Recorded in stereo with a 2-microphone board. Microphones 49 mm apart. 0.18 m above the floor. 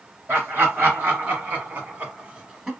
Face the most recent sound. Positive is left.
turn(degrees=-15)  # may be behind; listen again after turning